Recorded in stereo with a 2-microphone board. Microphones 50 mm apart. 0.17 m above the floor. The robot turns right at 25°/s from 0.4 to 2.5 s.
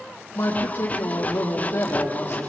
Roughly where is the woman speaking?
Left.